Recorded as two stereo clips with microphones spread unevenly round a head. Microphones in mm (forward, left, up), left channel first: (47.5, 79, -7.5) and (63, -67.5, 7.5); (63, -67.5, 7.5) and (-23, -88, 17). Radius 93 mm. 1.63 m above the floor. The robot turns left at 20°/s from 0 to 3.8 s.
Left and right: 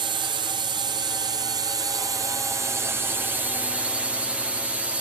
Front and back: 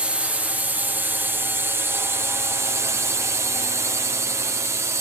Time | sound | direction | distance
0.0 | a drone | 95° right | ?